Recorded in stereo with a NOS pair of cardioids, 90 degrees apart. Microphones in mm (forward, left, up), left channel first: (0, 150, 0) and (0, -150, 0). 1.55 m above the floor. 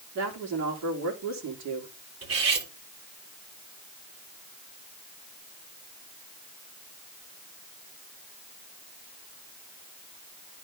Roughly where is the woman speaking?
Ahead right.